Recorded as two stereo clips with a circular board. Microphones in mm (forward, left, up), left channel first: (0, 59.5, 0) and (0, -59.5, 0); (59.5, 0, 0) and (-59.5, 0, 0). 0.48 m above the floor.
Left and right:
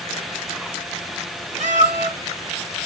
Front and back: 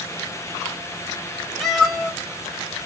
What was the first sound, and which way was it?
A cat meowing, 90° right.